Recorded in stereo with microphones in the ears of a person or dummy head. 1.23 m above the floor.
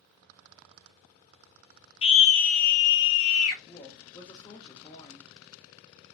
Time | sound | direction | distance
2.0 | a scream | 25° left (ahead or behind) | 1.1 m
3.7 | a woman speaking | 20° left (ahead or behind) | 1.1 m